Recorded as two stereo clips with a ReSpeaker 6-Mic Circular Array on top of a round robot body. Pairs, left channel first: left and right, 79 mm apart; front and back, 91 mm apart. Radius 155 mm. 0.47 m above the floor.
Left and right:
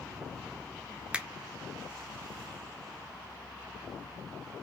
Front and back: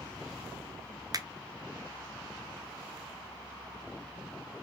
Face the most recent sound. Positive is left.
turn(degrees=-160)